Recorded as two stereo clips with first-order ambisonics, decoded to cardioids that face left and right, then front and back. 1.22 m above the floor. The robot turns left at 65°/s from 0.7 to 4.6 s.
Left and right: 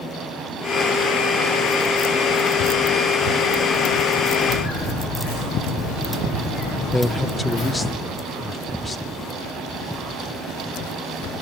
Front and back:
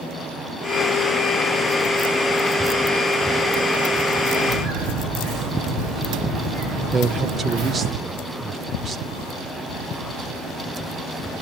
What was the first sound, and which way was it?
Footsteps, 145° left.